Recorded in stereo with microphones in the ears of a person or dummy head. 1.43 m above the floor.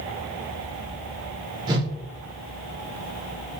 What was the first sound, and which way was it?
A whoosh, 25° right (ahead or behind).